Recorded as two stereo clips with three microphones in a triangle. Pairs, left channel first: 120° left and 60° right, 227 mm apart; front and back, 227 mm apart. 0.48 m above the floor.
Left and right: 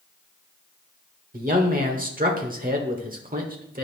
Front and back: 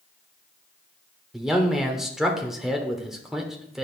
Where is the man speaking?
90° right, 1.1 m.